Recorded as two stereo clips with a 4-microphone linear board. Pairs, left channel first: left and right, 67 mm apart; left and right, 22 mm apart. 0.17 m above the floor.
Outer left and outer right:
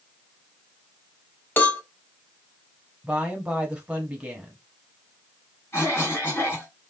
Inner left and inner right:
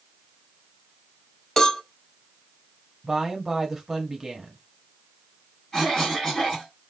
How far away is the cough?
About 1.6 m.